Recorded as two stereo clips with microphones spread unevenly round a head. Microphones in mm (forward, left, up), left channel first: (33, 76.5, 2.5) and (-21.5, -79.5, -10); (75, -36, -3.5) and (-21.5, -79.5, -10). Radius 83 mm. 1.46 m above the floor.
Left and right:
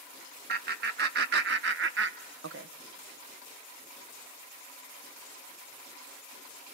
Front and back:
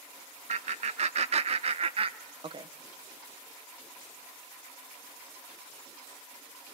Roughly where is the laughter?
Behind right.